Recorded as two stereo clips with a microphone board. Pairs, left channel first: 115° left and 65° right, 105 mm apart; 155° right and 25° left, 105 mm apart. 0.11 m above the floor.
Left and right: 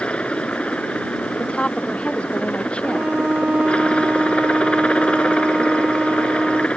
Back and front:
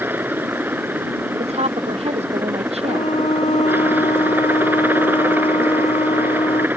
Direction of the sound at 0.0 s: 50° left.